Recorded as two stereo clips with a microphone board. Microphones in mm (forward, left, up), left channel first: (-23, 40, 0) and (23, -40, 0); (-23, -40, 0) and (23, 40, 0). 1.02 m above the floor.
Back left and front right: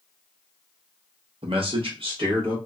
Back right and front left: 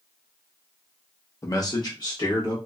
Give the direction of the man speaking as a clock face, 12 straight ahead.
2 o'clock.